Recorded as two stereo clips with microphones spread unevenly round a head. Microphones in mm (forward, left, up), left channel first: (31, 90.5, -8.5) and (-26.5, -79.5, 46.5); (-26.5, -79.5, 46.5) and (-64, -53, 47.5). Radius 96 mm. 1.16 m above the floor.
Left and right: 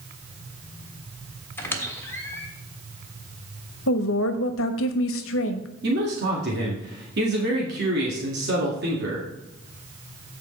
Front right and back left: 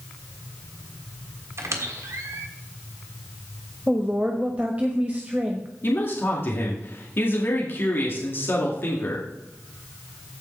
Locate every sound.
1.6 s a squeak: 155° left, 1.5 m
3.9 s a woman speaking: 70° left, 1.2 m
5.8 s a man speaking: 75° right, 2 m